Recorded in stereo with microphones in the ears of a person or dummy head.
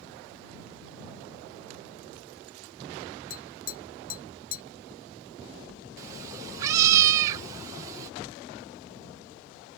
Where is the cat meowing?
20° right (ahead or behind).